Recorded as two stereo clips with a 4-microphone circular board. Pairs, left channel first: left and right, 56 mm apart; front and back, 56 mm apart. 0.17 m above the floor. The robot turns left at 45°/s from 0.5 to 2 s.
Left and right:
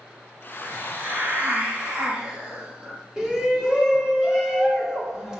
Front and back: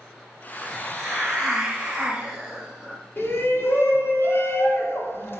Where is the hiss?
65° right, 1.5 m; by 3.0 s 130° right, 1.5 m.